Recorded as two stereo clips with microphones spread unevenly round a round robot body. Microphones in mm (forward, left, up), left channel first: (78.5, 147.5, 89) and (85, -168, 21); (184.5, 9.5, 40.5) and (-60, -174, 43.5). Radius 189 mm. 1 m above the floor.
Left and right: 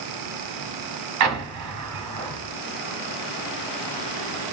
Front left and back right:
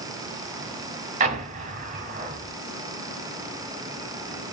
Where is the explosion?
95° right, 0.8 m.